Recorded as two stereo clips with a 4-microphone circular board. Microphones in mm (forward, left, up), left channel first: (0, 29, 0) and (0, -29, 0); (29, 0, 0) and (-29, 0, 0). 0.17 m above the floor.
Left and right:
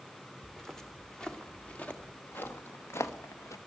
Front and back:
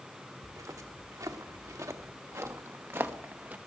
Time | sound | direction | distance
0.4 | footsteps | 175° left | 2 m